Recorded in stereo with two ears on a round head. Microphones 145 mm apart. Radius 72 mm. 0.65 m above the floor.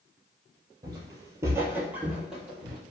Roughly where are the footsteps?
Right.